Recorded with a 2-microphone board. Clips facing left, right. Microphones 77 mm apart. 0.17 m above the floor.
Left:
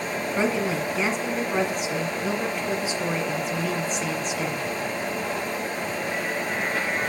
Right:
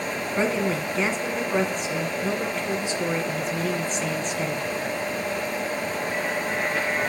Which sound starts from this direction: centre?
A woman speaking, at 0.4 s.